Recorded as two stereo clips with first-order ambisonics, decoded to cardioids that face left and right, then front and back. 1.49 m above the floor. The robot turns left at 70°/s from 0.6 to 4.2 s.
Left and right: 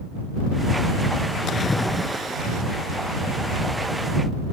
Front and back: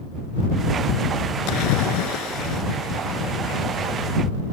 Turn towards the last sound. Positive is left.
turn(degrees=-160)